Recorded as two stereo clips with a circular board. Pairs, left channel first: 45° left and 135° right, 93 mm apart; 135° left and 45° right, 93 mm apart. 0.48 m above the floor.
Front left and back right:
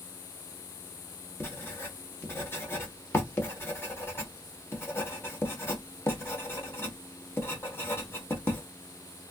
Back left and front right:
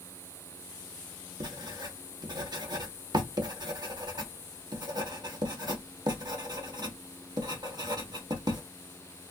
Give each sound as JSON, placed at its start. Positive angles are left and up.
{"t": 1.4, "sound": "writing", "azimuth_deg": -15, "distance_m": 0.8}